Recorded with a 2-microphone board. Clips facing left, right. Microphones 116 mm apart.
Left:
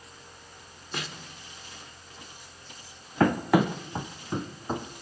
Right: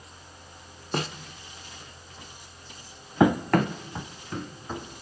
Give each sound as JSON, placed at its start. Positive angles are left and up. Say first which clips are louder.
{"t": 0.9, "sound": "a snare drum", "louder": "right 7 dB", "side_deg": -40, "distance_m": 1.1}
{"t": 3.2, "sound": "running footsteps", "louder": "right 1 dB", "side_deg": -10, "distance_m": 0.6}